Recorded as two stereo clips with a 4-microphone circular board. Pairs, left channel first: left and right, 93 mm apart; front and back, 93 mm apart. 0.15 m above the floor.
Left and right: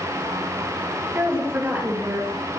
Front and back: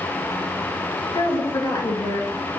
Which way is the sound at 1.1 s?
30° right.